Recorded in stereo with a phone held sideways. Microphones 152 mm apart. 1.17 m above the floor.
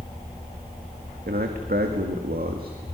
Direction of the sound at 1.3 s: 85° right.